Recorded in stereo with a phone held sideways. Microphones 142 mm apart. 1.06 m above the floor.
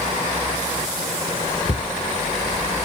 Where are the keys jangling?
I don't hear keys jangling.